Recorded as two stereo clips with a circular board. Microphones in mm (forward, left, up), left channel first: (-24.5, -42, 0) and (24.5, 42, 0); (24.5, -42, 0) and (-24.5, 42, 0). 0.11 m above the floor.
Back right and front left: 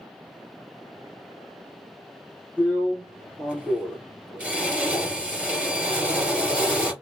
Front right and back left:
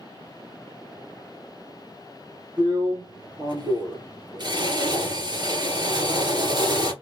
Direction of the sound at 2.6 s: 135° left.